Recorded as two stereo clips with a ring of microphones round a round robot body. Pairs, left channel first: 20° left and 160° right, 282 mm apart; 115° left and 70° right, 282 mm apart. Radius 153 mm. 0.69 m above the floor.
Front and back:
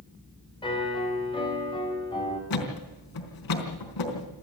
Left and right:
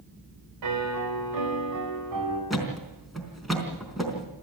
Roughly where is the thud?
Ahead.